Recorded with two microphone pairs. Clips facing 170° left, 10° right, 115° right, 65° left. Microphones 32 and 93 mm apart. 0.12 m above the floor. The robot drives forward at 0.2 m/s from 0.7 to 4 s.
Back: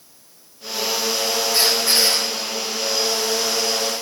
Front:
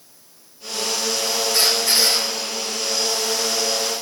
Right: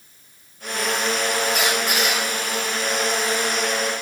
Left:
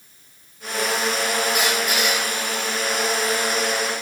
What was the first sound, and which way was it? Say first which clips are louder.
A squeak: even, even; 125° right.